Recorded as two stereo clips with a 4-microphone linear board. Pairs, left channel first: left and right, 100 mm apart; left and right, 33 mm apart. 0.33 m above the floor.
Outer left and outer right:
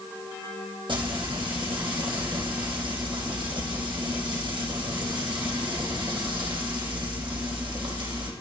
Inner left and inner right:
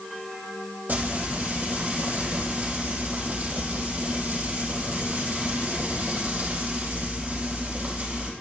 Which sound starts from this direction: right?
Frying, at 0.9 s.